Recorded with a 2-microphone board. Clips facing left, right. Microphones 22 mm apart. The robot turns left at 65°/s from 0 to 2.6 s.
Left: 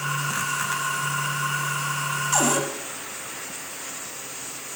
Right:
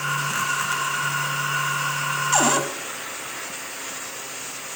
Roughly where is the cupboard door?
Centre.